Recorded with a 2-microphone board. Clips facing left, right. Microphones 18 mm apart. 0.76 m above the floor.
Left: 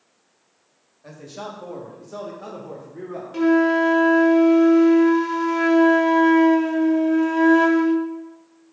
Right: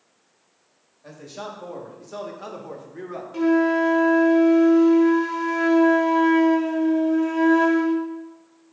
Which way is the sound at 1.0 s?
Centre (ahead or behind).